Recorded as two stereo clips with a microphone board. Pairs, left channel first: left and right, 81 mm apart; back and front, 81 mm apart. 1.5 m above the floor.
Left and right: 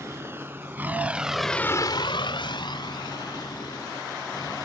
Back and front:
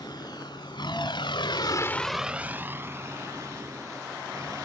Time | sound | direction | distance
0.0 | a vehicle | 150° right | ?